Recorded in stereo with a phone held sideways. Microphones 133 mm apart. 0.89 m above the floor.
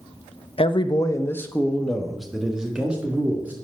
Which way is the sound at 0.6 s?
45° left (ahead or behind).